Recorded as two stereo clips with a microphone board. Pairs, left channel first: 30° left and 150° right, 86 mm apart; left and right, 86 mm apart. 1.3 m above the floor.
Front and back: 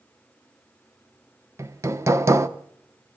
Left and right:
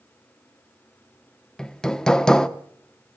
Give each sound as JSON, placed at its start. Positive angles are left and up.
{"t": 1.6, "sound": "hammering", "azimuth_deg": 170, "distance_m": 1.1}